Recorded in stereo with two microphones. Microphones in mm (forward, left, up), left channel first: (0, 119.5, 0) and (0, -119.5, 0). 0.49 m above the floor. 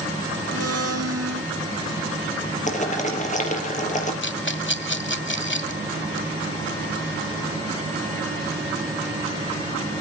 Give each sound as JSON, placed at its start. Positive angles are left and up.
{"t": 0.5, "sound": "a blender", "side_deg": -75, "distance_m": 1.2}
{"t": 2.7, "sound": "boiling", "side_deg": 30, "distance_m": 4.0}
{"t": 4.2, "sound": "a rattle", "side_deg": 50, "distance_m": 1.4}